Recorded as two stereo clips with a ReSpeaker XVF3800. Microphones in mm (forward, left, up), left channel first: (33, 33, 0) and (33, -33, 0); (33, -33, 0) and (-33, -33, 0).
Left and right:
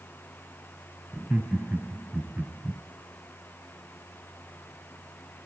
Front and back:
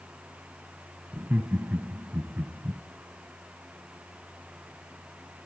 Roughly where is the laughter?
Behind.